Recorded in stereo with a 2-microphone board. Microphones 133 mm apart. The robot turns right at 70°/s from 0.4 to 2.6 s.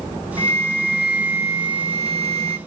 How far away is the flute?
About 0.7 m.